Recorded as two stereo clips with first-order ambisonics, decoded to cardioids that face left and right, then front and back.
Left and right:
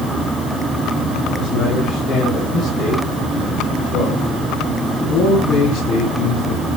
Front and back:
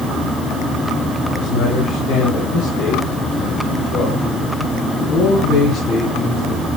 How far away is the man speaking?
About 6 m.